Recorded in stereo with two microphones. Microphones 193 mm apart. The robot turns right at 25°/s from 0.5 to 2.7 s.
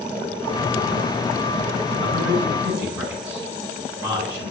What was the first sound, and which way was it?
A man speaking, 30° right (ahead or behind).